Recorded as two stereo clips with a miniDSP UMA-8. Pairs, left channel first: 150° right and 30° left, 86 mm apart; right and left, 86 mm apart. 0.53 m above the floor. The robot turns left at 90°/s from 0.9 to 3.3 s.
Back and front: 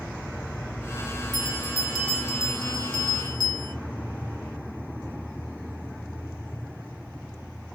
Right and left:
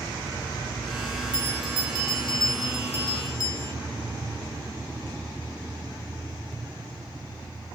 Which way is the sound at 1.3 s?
5° right.